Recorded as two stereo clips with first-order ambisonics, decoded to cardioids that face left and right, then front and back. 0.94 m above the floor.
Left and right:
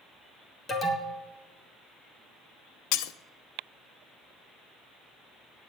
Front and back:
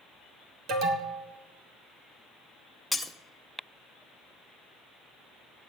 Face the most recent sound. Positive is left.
turn(degrees=85)